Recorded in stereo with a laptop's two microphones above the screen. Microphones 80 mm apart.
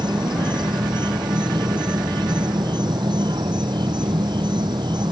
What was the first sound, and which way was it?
An insect, 70° right (ahead or behind).